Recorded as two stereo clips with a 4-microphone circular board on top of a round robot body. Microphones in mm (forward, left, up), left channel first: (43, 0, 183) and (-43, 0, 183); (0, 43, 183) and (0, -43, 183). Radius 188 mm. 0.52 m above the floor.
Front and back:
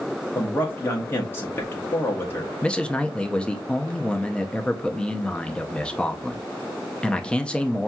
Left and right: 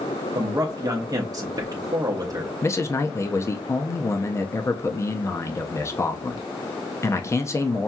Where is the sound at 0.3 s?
60° right, 0.9 m.